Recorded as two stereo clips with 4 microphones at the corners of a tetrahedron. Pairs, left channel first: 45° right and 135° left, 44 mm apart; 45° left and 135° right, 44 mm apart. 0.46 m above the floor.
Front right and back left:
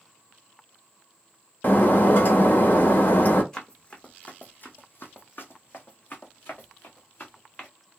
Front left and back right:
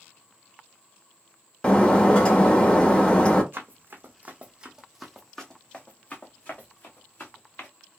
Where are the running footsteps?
115° right, 1.1 m; by 7.7 s 5° left, 2 m.